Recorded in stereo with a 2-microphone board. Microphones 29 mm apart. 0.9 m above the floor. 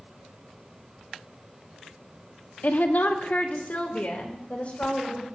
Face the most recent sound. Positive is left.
turn(degrees=45)  # may be behind; listen again after turning